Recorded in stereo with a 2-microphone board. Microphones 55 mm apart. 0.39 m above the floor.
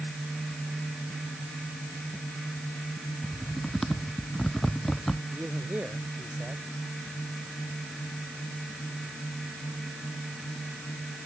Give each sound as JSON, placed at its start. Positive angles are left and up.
{"t": 3.2, "sound": "typing on a keyboard", "side_deg": 5}
{"t": 5.3, "sound": "a man speaking", "side_deg": -30}